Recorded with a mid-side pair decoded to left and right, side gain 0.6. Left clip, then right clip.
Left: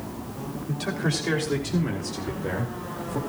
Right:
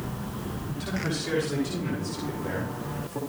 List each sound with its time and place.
0.7 s a man speaking: 40° left, 6 m; by 3.2 s 25° left, 4.5 m